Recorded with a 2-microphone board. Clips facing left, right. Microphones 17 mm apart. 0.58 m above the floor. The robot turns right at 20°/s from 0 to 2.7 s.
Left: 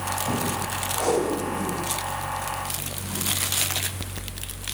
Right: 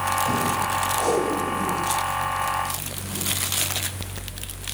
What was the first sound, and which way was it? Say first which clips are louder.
Tape being pulled: left 2 dB; 10° right (ahead or behind).